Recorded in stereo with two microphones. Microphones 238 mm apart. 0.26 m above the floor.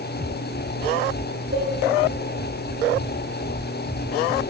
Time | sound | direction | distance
1.5 | a cowbell | 45° right (ahead or behind) | 6.5 m